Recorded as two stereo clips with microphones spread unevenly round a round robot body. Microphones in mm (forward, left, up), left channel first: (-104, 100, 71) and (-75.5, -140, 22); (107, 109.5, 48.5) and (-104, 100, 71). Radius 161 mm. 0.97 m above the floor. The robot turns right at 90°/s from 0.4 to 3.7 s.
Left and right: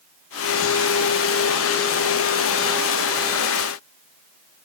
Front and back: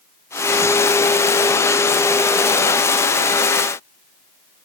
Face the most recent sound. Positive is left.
No sound to turn to.